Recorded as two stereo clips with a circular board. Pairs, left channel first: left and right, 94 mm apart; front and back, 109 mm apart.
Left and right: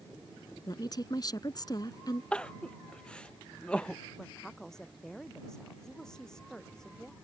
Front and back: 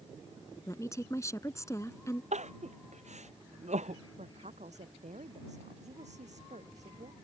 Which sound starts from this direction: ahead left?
A woman speaking, at 0.7 s.